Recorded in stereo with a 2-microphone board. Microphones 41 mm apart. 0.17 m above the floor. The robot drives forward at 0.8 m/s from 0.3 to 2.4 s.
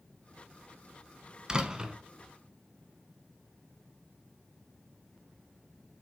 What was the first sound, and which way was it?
A door slam, 20° right (ahead or behind).